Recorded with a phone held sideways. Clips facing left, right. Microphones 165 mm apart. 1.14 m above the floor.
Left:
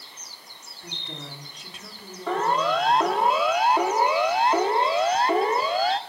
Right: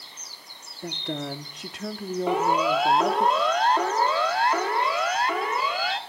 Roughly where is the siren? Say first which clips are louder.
Even; centre.